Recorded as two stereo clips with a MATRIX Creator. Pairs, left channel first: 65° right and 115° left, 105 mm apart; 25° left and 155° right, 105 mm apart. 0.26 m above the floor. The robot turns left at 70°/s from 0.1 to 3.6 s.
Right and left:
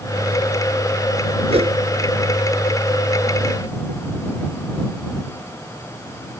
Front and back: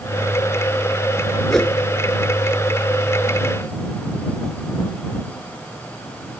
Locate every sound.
1.5 s a whoosh: 110° left; by 1.8 s 95° left